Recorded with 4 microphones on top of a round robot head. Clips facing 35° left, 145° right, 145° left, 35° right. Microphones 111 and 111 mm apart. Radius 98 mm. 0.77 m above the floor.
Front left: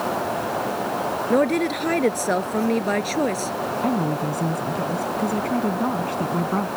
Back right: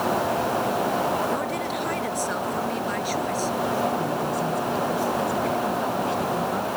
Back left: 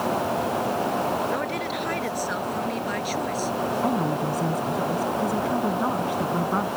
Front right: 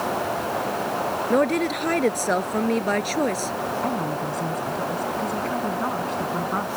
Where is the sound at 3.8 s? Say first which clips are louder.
Front left 2 dB, back left 2 dB; 65° left.